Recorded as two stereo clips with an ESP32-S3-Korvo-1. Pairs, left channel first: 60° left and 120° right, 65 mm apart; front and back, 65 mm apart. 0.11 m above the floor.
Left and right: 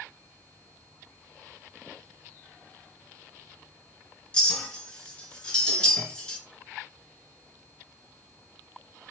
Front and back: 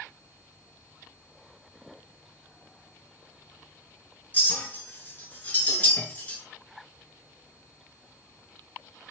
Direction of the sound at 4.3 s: 5° left.